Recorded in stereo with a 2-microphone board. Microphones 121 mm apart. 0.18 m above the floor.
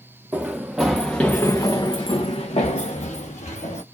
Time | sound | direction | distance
0.3 | running footsteps | 10° right (ahead or behind) | 1.1 m